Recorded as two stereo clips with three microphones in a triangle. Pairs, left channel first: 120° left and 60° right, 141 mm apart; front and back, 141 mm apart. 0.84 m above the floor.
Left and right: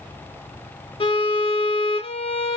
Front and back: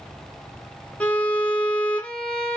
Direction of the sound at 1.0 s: 80° left.